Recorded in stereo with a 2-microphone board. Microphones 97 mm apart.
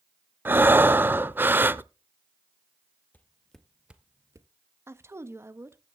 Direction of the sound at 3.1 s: 15° left (ahead or behind).